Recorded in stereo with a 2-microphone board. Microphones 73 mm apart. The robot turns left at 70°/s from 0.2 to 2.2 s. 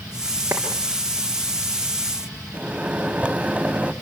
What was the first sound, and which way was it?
A clap, 35° right (ahead or behind).